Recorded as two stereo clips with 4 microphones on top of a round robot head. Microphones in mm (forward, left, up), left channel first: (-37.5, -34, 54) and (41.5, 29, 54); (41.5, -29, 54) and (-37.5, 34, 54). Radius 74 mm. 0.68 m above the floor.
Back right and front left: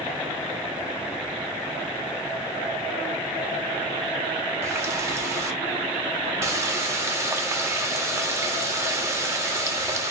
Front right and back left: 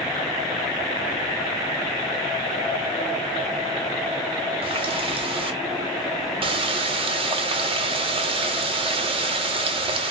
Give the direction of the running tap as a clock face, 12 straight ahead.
9 o'clock.